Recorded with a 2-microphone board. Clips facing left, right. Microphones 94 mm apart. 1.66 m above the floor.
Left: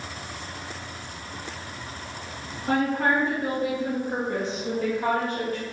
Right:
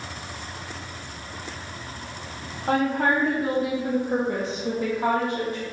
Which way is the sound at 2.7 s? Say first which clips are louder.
Right 1 dB; 60° right (ahead or behind).